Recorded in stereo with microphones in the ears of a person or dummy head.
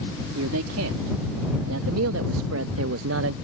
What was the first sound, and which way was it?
A man speaking, 80° right.